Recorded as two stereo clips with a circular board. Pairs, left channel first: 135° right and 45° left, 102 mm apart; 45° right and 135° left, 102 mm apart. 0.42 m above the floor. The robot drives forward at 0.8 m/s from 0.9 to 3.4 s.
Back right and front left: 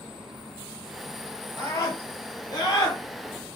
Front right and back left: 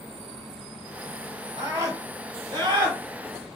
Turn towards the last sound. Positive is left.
turn(degrees=180)